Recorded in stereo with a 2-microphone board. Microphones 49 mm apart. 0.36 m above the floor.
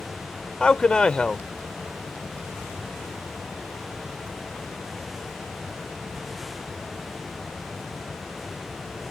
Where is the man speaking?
20° left (ahead or behind).